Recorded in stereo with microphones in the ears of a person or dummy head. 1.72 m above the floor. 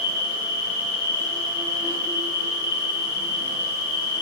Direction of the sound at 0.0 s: 25° left (ahead or behind).